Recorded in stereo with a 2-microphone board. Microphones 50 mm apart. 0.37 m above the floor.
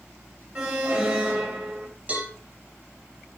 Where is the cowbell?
25° right (ahead or behind), 5 m.